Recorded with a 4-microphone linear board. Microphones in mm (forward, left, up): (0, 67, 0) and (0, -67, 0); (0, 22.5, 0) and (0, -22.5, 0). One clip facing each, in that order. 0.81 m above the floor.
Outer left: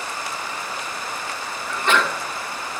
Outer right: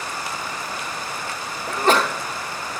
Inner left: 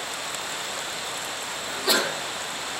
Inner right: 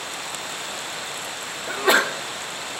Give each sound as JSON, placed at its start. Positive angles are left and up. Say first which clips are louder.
{"t": 1.7, "sound": "a sneeze", "louder": "outer right 3 dB, inner right 6 dB", "side_deg": -40, "distance_m": 0.9}